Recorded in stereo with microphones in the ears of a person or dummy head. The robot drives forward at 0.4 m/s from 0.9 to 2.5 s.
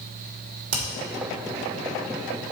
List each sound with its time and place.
0.7 s hammering: 70° right (ahead or behind), 2.5 m